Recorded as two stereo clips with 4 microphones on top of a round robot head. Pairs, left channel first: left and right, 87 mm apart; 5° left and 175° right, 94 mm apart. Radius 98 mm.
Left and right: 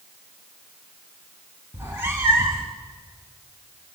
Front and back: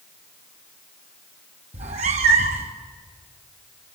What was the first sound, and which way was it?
A cat meowing, 165° right.